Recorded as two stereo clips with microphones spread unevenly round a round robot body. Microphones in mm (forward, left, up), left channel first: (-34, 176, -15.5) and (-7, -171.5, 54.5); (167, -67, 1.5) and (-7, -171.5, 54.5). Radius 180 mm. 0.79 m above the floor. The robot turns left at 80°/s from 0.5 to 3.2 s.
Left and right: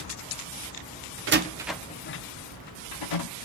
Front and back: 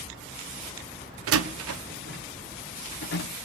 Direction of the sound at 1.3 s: 145° right.